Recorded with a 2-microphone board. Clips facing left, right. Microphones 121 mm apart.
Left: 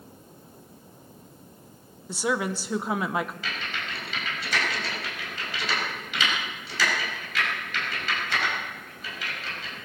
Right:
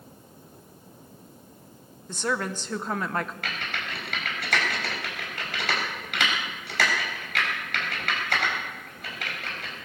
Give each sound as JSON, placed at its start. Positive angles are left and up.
{"t": 2.1, "sound": "a woman speaking", "side_deg": 10, "distance_m": 0.7}
{"t": 3.4, "sound": "typing on a keyboard", "side_deg": -65, "distance_m": 4.0}